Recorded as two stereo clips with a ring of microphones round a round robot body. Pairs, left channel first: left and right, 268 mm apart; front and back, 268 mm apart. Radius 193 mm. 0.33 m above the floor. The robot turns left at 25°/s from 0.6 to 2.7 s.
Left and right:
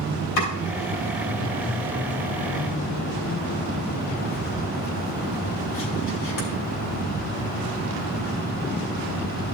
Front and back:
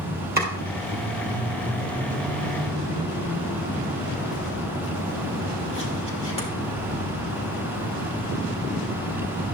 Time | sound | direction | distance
0.4 | chopping | 125° left | 3 m